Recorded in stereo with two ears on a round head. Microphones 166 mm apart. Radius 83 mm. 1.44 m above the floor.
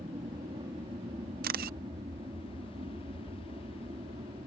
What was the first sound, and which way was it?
An aircraft, 25° right (ahead or behind).